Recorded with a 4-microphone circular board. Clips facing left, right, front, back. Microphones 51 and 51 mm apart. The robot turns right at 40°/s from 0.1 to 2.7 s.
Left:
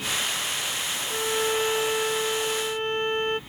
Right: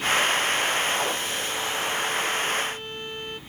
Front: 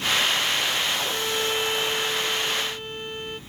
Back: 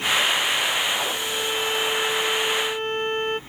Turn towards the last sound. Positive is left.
turn(degrees=135)